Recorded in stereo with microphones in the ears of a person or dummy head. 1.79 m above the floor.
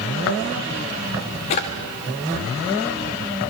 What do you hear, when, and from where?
1.5 s a drawer: 25° left (ahead or behind), 1.3 m